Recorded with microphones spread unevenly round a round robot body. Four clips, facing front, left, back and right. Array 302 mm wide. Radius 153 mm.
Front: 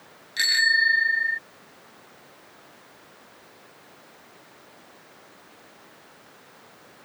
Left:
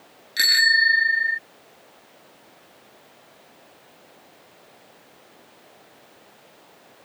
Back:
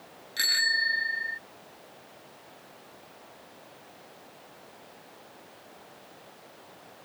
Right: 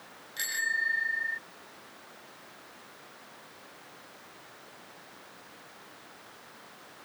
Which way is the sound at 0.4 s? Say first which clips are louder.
Left 12 dB, front 7 dB; 95° left.